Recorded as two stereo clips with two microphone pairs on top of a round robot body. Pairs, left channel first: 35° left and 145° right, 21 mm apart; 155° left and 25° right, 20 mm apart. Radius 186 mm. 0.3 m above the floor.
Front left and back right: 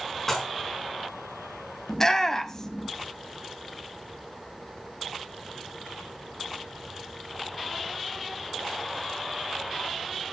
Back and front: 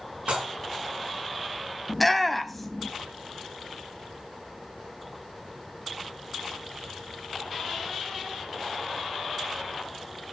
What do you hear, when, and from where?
0.3 s dishes clattering: 40° right, 4 m
1.9 s a shout: 80° left, 1.1 m